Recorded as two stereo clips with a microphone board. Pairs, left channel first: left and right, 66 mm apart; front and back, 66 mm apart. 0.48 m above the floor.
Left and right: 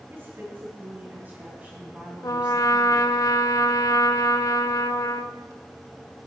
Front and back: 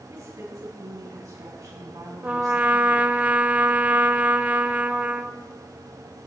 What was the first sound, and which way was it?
A woman speaking, 145° right.